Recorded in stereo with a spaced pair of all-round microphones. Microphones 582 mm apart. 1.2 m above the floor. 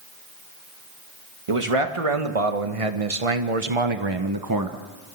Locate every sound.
1.5 s a man speaking: 60° right (ahead or behind), 2 m; by 4.8 s 25° right (ahead or behind), 1.3 m